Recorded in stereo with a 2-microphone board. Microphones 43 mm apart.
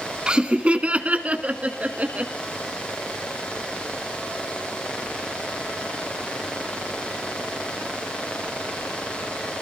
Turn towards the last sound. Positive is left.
turn(degrees=-35)  # may be behind; listen again after turning